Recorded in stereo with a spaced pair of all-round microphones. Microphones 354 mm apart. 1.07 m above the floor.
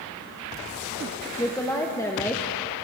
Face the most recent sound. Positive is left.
turn(degrees=10)  # may be behind; listen again after turning